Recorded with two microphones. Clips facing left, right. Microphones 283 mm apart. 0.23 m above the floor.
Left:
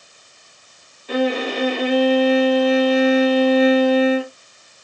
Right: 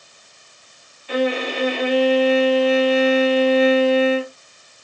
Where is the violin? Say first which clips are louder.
Left 1 dB; 45° left (ahead or behind), 1.3 m.